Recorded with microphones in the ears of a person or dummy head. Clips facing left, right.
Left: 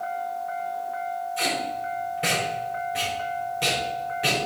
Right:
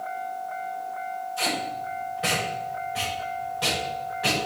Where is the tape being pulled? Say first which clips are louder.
Even; 30° left (ahead or behind), 4.5 m.